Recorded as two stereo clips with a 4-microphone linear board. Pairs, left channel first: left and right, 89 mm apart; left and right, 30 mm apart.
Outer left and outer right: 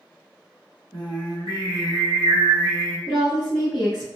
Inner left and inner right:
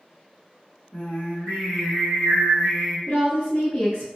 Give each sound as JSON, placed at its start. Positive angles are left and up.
{"t": 0.9, "sound": "singing", "side_deg": 55, "distance_m": 1.2}
{"t": 3.1, "sound": "a woman speaking", "side_deg": 35, "distance_m": 1.3}